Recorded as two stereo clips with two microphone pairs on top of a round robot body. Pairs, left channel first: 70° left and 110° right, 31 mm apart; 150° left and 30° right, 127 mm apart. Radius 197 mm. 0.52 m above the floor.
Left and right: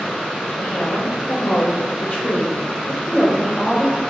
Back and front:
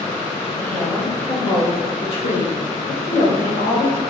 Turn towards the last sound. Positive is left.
turn(degrees=155)